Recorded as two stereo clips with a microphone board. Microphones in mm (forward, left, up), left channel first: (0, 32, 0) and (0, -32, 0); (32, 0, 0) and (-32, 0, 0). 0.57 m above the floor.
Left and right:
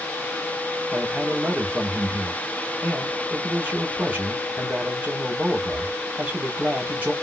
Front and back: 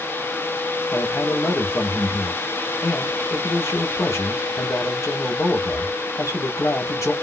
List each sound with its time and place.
0.9 s a man speaking: 30° right, 1.5 m